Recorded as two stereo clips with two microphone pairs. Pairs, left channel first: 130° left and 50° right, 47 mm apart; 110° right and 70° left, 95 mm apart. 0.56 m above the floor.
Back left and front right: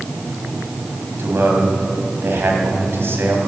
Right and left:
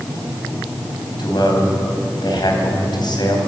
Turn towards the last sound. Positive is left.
turn(degrees=-80)